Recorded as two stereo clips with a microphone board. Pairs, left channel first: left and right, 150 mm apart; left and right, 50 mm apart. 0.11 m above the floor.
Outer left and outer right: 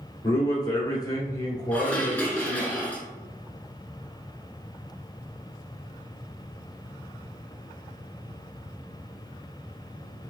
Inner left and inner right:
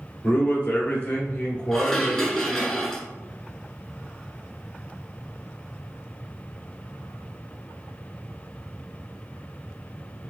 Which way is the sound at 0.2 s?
25° left (ahead or behind).